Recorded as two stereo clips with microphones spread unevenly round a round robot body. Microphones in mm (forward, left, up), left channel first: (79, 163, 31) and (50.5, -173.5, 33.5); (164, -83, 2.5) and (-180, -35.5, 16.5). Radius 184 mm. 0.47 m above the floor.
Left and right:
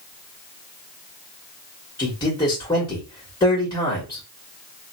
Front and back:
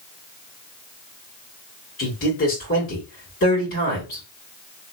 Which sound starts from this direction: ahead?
A man speaking, at 2.0 s.